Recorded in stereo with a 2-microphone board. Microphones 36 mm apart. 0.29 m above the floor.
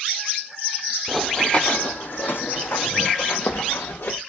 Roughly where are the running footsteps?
Centre.